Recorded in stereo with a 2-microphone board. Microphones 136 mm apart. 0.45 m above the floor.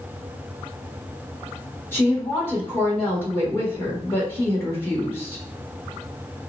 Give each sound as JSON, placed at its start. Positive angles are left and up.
{"t": 1.9, "sound": "a woman speaking", "side_deg": 15, "distance_m": 1.3}